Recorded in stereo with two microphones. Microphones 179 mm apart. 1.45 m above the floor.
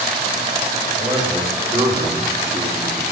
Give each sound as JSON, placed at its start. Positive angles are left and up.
{"t": 1.0, "sound": "a man speaking", "side_deg": -35, "distance_m": 3.5}